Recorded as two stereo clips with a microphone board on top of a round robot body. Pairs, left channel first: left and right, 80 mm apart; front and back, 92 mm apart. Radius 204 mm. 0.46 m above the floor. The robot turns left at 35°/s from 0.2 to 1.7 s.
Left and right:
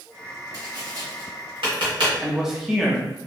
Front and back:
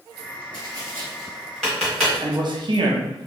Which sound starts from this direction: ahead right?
Tapping, at 0.5 s.